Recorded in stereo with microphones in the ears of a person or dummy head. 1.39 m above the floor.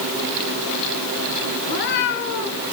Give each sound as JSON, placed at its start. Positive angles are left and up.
{"t": 1.7, "sound": "a cat meowing", "side_deg": 55, "distance_m": 2.5}